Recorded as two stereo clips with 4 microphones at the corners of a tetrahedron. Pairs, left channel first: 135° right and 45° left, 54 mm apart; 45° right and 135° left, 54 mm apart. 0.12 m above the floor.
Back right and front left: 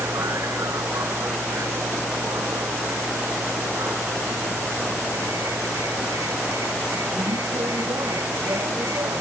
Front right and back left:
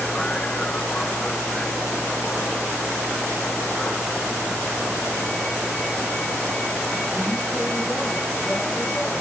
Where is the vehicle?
25° left; by 9.2 s 30° left.